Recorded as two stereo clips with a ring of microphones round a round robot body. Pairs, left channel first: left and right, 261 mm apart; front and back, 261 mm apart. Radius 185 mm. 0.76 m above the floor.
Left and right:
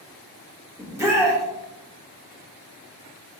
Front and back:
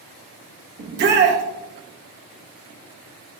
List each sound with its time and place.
0.8 s a shout: 165° right, 0.7 m